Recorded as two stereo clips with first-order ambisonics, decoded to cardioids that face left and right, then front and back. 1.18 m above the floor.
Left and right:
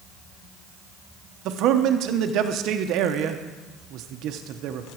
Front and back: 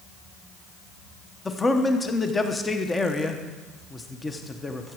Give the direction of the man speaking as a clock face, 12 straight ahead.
3 o'clock.